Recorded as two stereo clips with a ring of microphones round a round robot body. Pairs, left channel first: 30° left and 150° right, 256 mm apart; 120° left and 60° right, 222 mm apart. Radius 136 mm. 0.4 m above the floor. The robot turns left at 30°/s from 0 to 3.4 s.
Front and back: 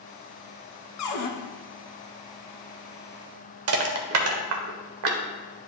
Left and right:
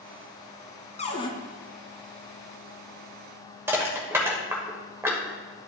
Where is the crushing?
140° right, 1.2 m.